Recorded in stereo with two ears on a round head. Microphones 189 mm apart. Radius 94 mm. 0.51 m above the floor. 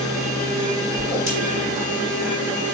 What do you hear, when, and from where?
1.0 s a whoosh: 15° right (ahead or behind), 2.0 m